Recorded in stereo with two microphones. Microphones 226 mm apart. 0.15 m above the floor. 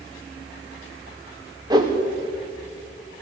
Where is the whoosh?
15° right (ahead or behind), 4 m.